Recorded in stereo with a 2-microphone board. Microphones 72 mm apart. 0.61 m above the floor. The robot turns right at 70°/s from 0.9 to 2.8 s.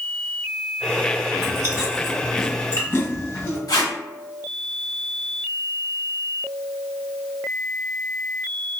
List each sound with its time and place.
1.4 s chewing: 60° right (ahead or behind), 1.4 m; by 3.6 s 40° left (ahead or behind), 1.4 m
3.7 s tape being pulled: 65° left (ahead or behind), 0.7 m